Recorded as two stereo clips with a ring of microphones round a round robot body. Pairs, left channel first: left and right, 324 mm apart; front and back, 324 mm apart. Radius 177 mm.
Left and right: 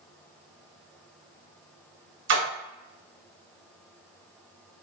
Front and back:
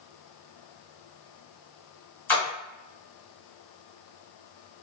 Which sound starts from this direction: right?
A splash, at 2.3 s.